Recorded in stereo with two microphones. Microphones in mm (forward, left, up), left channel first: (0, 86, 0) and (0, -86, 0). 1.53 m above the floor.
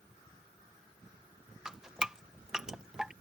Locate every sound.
1.6 s dripping: 5° right (ahead or behind)